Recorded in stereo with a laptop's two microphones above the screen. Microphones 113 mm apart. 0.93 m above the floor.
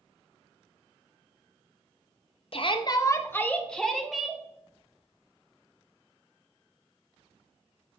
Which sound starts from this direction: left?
A shout, at 2.5 s.